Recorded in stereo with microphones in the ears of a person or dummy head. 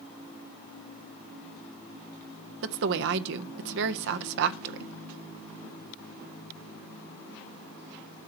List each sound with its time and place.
2.6 s a woman speaking: 65° right (ahead or behind), 0.6 m